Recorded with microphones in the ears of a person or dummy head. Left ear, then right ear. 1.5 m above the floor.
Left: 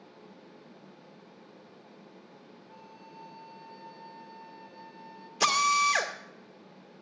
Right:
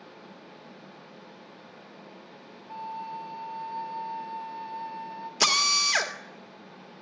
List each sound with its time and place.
2.7 s a flute: 25° right (ahead or behind), 0.9 m
5.4 s a drill: 35° right (ahead or behind), 1.7 m